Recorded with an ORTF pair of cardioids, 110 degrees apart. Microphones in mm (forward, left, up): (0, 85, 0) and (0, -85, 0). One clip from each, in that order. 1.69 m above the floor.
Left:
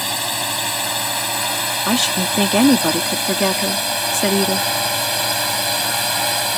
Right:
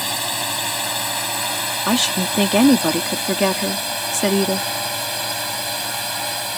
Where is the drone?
10° left; by 6.6 s 35° left.